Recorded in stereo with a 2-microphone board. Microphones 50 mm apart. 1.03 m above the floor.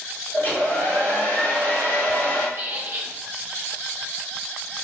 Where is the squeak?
50° right (ahead or behind), 0.8 m.